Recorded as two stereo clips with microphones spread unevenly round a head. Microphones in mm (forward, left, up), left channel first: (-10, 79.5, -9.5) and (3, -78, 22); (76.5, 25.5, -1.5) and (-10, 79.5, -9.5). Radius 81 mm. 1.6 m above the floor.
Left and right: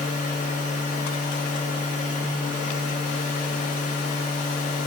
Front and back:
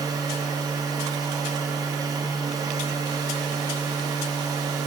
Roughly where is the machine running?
Behind left.